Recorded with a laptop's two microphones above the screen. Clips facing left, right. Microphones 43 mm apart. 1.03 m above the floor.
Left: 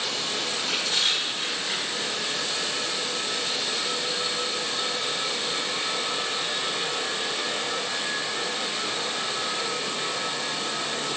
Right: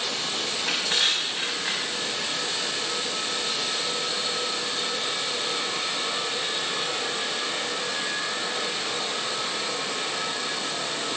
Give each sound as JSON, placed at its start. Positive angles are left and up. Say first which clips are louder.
{"t": 0.5, "sound": "crushing", "louder": "right 2 dB", "side_deg": -60, "distance_m": 8.0}